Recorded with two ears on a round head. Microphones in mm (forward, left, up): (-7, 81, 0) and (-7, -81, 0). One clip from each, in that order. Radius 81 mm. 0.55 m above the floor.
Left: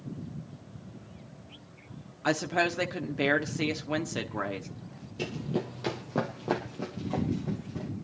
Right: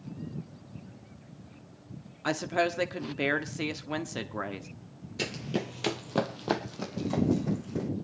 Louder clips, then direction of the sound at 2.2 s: Left 1 dB; centre (ahead or behind).